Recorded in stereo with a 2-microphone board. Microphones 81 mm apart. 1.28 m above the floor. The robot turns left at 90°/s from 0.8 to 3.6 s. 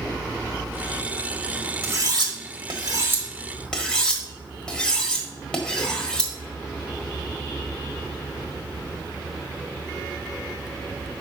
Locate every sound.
1.8 s cutlery clinking: 30° right (ahead or behind), 1.3 m; by 6.3 s 10° left (ahead or behind), 1.3 m